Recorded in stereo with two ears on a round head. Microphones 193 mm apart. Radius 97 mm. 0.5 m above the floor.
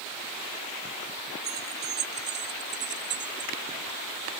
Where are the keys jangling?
45° right (ahead or behind); by 3.5 s 55° right (ahead or behind).